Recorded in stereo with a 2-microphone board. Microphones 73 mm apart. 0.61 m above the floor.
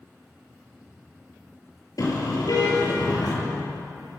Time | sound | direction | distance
2.0 | a car horn | 55° left (ahead or behind) | 7 m